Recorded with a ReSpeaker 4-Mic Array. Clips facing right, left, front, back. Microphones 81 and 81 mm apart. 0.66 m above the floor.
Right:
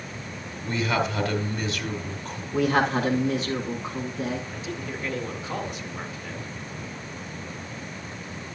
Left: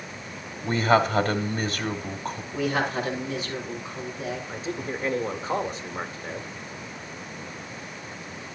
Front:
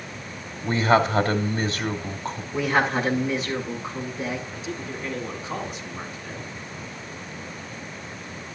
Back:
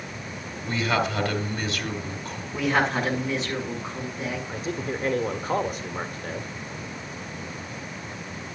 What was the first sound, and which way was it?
A man speaking, 45° left.